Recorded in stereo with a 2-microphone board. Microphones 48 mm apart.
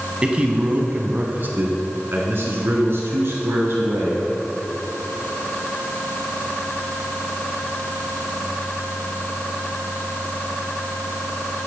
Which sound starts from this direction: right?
A man speaking, at 0.2 s.